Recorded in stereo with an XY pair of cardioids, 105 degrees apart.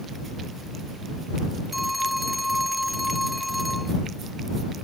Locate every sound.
1.7 s a phone ringing: 10° left